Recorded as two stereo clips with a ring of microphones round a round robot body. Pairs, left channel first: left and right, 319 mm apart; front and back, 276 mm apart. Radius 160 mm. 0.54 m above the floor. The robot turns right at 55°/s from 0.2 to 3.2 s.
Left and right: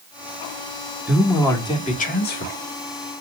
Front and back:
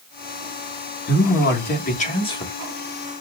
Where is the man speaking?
10° right, 1.4 m; by 2.5 s 70° left, 1.4 m.